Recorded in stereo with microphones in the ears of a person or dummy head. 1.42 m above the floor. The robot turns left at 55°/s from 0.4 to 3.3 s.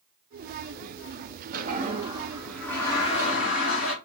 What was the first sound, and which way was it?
A toilet flushing, 125° right.